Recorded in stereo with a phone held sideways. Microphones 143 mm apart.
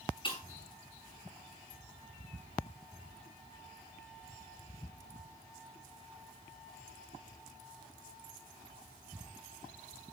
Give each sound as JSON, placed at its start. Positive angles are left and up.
{"t": 0.2, "sound": "breaking glass", "side_deg": 35, "distance_m": 5.0}